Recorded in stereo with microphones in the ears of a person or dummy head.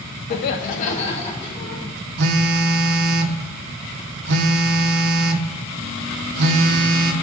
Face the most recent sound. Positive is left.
turn(degrees=-65)  # may be behind; listen again after turning